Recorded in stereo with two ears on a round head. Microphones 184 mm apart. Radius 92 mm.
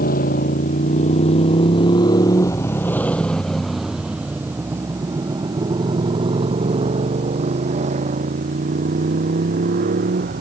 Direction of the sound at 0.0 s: 45° left (ahead or behind).